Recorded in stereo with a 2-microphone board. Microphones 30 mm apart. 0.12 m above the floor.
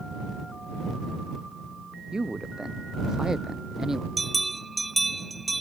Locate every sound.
2.1 s a man speaking: 25° right (ahead or behind); by 4.1 s 15° right (ahead or behind)
4.2 s a bell: centre (ahead or behind)